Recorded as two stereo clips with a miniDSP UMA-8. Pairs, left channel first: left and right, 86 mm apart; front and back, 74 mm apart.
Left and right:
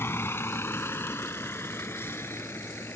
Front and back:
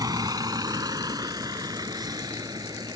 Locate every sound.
0.0 s a vehicle: 150° left